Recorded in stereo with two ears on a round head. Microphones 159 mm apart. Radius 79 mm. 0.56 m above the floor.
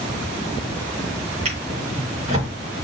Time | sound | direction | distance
1.4 | a drawer | 40° right (ahead or behind) | 5 m